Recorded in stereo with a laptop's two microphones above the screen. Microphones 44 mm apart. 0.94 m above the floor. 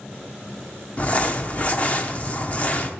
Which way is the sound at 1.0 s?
40° left (ahead or behind).